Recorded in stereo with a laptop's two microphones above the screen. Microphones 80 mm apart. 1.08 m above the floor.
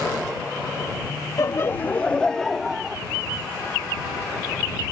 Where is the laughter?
45° left (ahead or behind); by 3.0 s 5° right (ahead or behind).